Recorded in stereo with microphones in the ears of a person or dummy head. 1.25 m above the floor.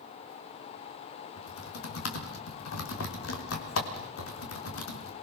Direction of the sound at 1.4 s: 90° left.